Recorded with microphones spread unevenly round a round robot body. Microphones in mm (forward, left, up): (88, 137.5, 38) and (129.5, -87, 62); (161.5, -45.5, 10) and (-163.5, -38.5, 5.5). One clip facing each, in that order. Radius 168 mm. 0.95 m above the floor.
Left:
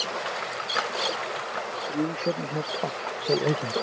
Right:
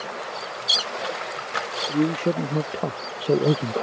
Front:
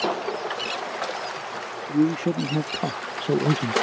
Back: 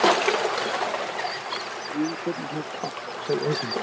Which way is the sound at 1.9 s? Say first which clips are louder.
Right 6 dB, front 6 dB; 30° right.